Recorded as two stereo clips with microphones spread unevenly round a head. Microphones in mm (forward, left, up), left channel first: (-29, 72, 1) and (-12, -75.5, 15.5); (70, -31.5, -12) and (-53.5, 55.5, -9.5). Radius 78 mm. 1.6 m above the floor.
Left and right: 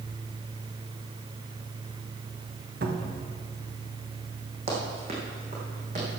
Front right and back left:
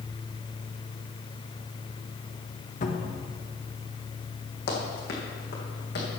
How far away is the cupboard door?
About 1.2 m.